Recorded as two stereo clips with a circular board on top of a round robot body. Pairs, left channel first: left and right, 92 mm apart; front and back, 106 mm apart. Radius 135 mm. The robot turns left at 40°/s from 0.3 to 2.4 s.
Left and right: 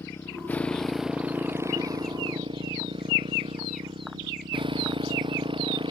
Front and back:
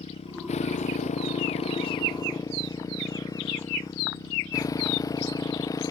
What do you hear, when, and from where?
0.0 s a motorcycle: 25° left; by 5.9 s 60° right